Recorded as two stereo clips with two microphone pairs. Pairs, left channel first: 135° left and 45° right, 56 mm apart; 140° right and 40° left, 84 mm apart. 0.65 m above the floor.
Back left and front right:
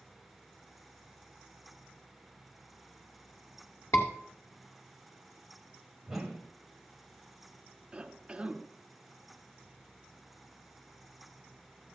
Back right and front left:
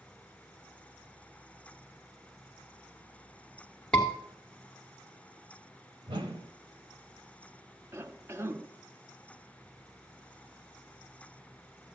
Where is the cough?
15° left, 0.7 m.